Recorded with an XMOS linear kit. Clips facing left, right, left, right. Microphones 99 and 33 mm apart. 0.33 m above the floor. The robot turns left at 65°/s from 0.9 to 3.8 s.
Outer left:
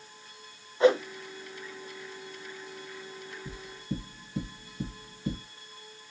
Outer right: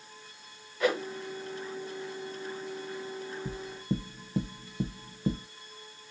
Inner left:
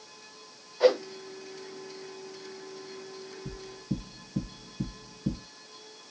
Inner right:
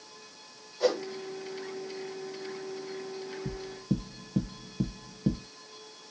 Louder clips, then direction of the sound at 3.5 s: Outer right 3 dB, inner right 3 dB; 50° right (ahead or behind).